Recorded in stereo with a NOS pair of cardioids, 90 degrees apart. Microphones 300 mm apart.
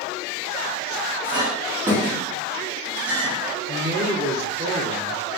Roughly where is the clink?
Ahead right.